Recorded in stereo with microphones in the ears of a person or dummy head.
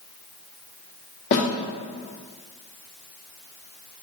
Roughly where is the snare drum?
Left.